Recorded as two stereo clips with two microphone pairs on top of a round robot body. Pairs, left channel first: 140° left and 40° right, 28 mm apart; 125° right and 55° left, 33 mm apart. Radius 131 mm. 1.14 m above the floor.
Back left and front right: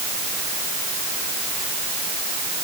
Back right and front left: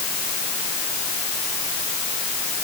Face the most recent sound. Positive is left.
No sound to turn to.